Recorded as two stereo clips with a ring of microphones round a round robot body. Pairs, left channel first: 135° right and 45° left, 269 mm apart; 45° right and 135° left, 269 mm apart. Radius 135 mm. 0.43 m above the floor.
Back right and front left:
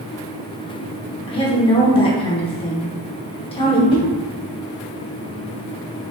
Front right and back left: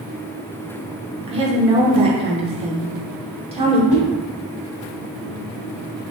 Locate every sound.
1.3 s a woman speaking: straight behind, 0.8 m
3.9 s a whoosh: 20° right, 1.9 m